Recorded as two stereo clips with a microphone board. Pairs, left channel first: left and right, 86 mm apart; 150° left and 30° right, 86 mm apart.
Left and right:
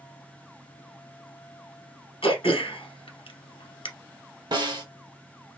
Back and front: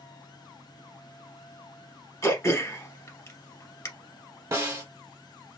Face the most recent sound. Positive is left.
turn(degrees=-75)